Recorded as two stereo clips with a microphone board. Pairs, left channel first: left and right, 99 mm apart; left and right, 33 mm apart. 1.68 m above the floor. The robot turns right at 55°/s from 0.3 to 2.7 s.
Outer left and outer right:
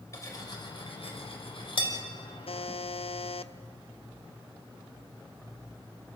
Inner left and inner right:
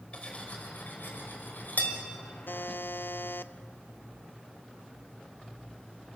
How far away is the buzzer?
About 0.6 m.